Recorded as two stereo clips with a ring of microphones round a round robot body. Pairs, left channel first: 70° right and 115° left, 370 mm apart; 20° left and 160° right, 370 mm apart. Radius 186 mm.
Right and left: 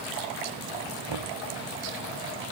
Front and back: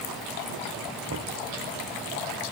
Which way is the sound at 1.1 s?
145° left.